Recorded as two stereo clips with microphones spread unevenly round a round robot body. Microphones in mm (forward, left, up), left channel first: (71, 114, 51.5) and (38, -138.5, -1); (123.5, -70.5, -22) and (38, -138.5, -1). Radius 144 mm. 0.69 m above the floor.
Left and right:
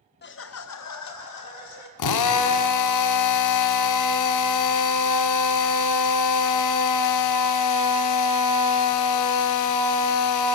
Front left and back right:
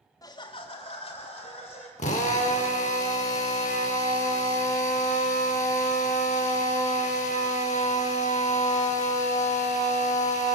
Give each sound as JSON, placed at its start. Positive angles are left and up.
{"t": 0.2, "sound": "laughter", "azimuth_deg": 35, "distance_m": 0.6}
{"t": 2.0, "sound": "a drill", "azimuth_deg": 85, "distance_m": 0.6}